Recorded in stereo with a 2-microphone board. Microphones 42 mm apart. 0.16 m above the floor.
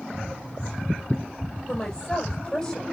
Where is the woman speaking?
20° left (ahead or behind), 5.5 m.